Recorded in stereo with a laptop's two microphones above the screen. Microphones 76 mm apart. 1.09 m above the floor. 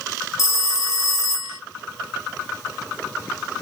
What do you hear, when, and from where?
0.4 s a phone ringing: 40° left (ahead or behind), 0.7 m